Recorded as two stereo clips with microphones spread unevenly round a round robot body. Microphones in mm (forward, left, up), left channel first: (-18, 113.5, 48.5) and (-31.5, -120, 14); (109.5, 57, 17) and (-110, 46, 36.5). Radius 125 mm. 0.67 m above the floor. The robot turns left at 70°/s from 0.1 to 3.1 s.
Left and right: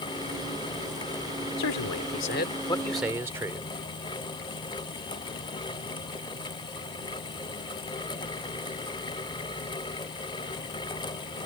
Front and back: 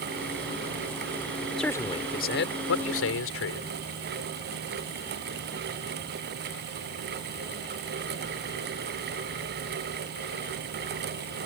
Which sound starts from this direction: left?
A man speaking, at 1.6 s.